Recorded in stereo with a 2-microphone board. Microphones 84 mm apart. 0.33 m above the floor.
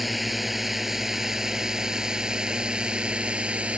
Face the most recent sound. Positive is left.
turn(degrees=-15)  # may be behind; listen again after turning